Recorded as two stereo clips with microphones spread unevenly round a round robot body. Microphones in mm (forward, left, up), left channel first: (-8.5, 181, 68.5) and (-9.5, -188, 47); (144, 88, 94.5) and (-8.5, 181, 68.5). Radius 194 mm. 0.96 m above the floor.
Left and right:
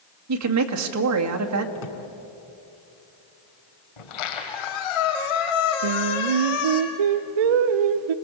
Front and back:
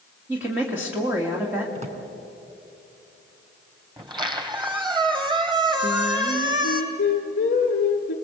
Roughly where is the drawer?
Left.